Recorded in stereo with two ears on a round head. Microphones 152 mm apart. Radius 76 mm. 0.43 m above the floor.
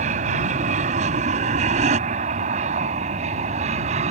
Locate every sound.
0.0 s an aircraft: 40° right (ahead or behind)